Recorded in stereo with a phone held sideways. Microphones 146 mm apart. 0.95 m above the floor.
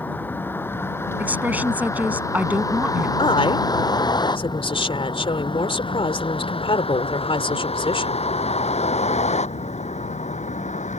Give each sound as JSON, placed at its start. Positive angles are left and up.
{"t": 0.0, "sound": "a vehicle", "side_deg": 15}
{"t": 1.2, "sound": "a woman speaking", "side_deg": -10}
{"t": 3.2, "sound": "a woman speaking", "side_deg": 40}